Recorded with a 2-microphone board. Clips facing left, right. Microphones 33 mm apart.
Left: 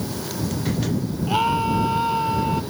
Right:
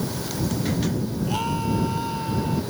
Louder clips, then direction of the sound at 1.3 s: Left 7 dB; 25° left (ahead or behind).